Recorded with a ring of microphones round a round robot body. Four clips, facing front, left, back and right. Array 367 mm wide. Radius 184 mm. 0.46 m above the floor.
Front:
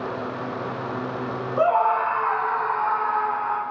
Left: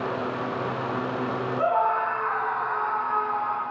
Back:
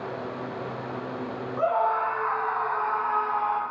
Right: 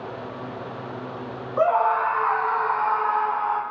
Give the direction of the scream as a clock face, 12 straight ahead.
1 o'clock.